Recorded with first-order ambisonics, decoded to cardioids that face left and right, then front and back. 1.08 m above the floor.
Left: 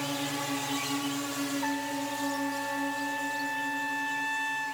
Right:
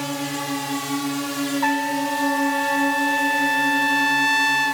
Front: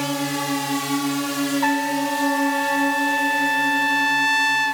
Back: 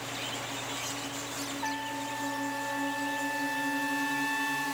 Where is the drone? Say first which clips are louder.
Right 5 dB, front 11 dB; 20° right; by 4.7 s 85° right.